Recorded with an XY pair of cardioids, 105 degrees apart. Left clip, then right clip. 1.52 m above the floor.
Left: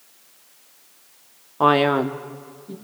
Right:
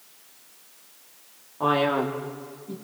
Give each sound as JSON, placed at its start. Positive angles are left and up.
{"t": 1.6, "sound": "a man speaking", "azimuth_deg": 65, "distance_m": 1.0}